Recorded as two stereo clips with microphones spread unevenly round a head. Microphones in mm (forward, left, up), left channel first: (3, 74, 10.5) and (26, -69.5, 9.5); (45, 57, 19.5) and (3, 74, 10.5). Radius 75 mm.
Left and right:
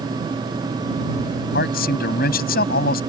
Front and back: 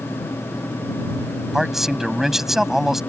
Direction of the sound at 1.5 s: 75° left.